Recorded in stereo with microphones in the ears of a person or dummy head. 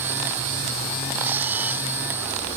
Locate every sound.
1.2 s a camera shutter: 10° right (ahead or behind)